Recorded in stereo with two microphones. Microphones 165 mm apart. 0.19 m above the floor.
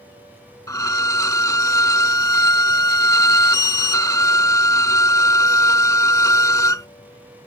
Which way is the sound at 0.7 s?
20° left (ahead or behind).